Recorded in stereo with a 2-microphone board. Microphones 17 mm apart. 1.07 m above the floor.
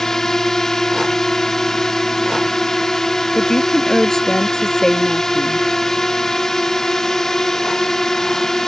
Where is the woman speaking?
35° left (ahead or behind).